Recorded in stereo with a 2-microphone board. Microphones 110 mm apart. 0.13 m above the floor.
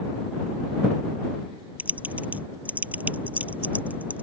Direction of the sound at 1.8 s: 15° right (ahead or behind).